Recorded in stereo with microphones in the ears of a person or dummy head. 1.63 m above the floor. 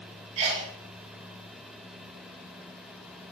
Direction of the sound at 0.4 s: 30° right (ahead or behind).